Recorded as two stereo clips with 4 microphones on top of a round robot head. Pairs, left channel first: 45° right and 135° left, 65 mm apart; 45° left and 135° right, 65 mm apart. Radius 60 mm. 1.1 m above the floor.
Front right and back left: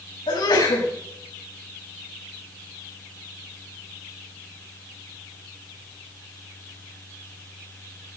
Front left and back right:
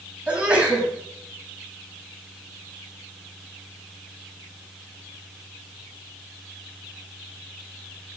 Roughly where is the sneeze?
Ahead right.